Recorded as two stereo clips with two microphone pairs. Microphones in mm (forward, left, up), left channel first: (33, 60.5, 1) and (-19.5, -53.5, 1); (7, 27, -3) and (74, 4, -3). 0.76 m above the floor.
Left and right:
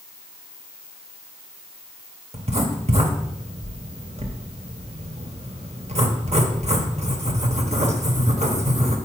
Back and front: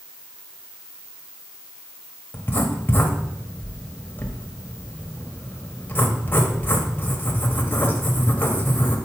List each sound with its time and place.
2.3 s writing: 140° right, 1.0 m